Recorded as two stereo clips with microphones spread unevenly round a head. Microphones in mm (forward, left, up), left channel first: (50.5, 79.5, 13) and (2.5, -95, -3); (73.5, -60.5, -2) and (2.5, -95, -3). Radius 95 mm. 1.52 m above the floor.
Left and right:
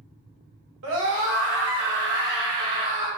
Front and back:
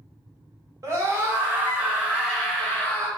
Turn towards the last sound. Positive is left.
turn(degrees=-50)